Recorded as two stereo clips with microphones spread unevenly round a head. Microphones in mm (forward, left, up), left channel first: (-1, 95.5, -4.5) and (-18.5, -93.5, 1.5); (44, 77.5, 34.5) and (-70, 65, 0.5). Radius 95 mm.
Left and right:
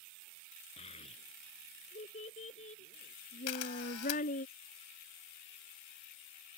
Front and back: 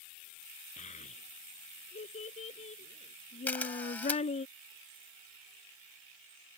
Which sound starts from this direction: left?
A camera shutter, at 3.5 s.